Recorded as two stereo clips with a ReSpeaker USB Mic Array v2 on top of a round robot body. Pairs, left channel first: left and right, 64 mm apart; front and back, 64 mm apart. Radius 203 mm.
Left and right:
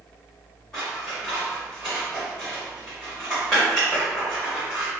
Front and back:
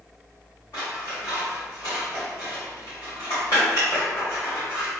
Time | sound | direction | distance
0.7 | scissors | 10° left | 0.6 m